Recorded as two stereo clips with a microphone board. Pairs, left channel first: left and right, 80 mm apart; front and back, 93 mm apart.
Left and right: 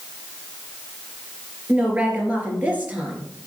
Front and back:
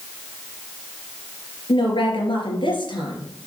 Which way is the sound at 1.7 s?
20° right.